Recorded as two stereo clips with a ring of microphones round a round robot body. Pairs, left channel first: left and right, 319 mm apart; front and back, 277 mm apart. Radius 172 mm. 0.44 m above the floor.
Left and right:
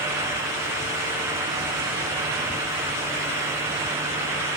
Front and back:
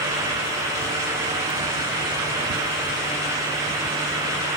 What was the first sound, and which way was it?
Only background noise.